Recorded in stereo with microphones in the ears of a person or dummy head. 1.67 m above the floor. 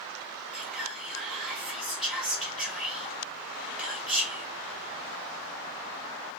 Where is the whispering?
Centre (ahead or behind), 1.4 m.